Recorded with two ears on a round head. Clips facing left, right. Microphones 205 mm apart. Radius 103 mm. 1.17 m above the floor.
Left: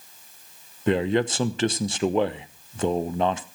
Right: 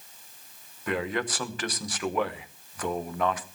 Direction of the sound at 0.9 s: 25° left (ahead or behind).